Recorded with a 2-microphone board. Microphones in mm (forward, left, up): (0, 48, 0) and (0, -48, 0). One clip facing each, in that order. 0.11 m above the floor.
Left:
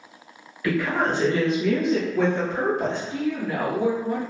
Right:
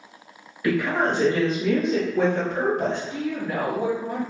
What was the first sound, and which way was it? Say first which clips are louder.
A woman speaking: right 1 dB; 20° right (ahead or behind).